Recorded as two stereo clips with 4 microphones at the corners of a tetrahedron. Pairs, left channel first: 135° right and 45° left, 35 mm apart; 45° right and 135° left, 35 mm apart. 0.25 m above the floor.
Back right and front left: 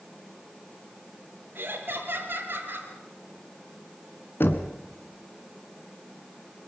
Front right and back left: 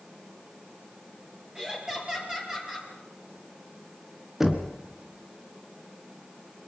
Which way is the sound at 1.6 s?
65° left.